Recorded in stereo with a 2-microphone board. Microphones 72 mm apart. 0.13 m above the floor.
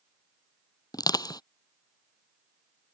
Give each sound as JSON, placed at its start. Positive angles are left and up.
{"t": 0.9, "sound": "crushing", "side_deg": 70}